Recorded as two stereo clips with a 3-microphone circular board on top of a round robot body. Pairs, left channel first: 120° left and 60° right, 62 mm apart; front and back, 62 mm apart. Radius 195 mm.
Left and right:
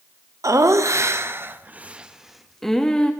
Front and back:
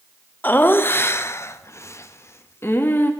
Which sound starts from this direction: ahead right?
Laughter, at 0.4 s.